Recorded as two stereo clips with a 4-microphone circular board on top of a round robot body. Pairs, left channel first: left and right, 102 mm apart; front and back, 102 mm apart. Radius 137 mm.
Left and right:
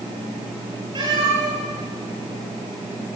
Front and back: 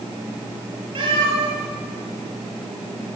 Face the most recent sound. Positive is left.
turn(degrees=-135)